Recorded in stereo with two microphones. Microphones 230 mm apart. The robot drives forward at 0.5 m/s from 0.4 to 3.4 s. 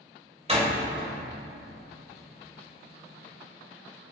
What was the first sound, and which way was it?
A door slam, 25° right (ahead or behind).